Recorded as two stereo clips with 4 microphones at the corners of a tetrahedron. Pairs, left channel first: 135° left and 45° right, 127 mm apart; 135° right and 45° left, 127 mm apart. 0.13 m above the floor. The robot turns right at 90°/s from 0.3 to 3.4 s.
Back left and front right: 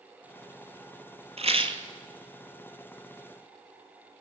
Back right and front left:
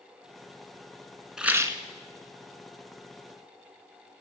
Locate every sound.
1.4 s a rattle: 40° right, 1.0 m; by 1.8 s straight ahead, 1.0 m